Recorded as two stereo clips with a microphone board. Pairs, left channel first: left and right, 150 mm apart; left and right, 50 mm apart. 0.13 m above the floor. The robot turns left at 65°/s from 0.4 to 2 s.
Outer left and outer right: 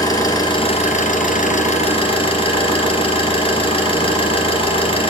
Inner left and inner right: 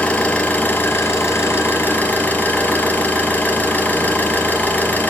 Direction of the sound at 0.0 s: 150° left.